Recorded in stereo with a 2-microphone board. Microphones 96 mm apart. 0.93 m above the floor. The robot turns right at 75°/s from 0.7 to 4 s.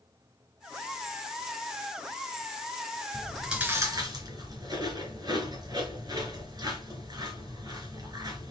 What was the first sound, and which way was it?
Chewing, 15° left (ahead or behind).